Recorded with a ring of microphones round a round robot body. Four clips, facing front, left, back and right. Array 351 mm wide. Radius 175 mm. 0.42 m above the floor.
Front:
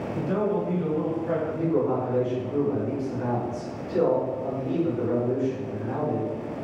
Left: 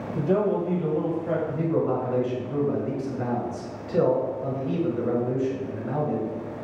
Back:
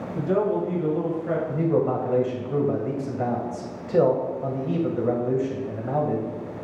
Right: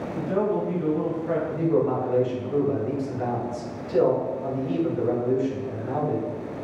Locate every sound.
0.1 s a man speaking: 120° left, 2 m; by 1.4 s 125° left, 3 m
1.5 s a man speaking: 170° left, 2.5 m